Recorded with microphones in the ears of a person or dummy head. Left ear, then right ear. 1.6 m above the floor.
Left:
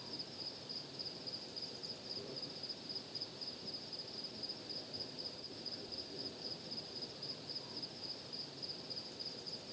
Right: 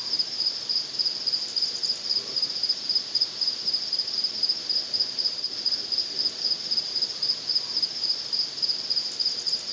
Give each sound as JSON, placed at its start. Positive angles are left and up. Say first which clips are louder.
{"t": 0.0, "sound": "an insect", "louder": "right 20 dB", "side_deg": -55}